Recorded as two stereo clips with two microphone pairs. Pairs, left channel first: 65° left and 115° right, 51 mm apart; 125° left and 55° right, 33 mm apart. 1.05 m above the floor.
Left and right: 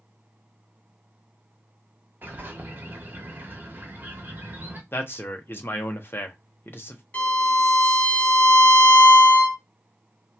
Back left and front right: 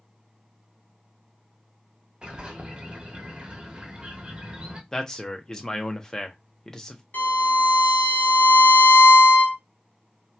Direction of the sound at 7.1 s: 125° left.